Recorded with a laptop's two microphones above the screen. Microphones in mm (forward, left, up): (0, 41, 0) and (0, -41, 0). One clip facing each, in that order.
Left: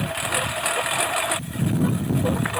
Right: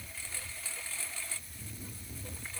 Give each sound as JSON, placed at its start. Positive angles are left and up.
{"t": 0.0, "sound": "a lawn mower", "side_deg": 80}